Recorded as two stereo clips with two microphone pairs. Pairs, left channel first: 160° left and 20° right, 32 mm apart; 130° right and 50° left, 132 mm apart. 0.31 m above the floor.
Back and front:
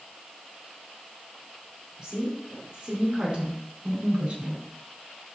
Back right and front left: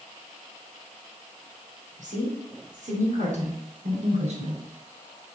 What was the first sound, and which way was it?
A woman speaking, 45° left.